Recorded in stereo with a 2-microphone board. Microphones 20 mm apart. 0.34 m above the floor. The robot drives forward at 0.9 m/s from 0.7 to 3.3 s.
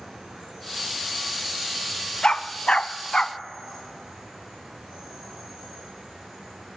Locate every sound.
0.0 s an insect: 50° right (ahead or behind), 6.5 m; by 6.8 s 35° right (ahead or behind), 8.5 m
2.2 s a dog barking: 55° left (ahead or behind), 0.7 m; by 3.4 s 45° left (ahead or behind), 0.8 m